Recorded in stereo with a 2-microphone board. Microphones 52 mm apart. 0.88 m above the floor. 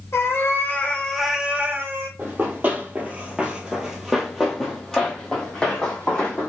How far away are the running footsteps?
About 1.1 m.